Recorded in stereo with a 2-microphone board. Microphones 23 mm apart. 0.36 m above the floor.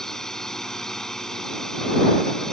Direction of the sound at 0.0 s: 25° left (ahead or behind).